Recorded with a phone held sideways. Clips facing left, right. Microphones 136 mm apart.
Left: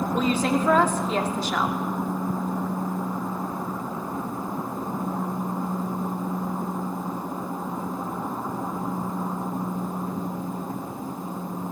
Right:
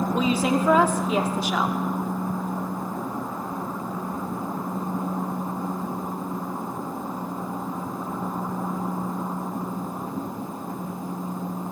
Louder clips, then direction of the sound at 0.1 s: Even; 10° right (ahead or behind).